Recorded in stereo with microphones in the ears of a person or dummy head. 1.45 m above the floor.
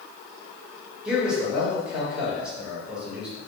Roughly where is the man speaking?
Centre.